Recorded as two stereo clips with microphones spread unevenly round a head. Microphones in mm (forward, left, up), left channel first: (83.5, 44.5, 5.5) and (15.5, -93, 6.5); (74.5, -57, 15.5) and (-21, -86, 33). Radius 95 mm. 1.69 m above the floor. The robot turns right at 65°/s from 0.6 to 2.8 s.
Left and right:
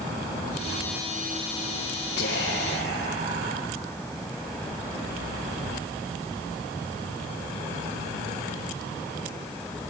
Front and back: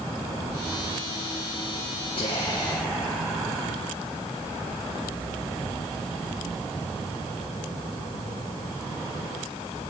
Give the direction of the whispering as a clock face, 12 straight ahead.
10 o'clock.